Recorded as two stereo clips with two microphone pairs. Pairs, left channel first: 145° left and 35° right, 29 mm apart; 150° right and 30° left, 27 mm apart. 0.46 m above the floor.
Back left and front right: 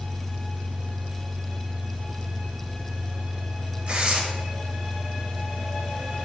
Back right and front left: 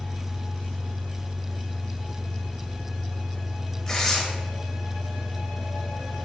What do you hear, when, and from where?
0.0 s an engine running: 50° right, 0.9 m
3.9 s tearing paper: 75° right, 1.4 m